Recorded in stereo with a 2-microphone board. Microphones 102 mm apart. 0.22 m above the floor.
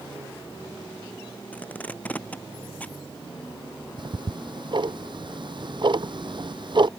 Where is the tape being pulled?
15° left (ahead or behind).